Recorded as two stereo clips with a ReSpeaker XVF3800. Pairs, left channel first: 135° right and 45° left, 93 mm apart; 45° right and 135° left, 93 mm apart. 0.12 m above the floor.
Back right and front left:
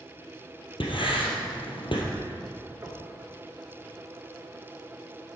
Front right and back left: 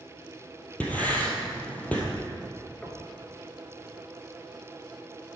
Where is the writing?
120° right, 2 m.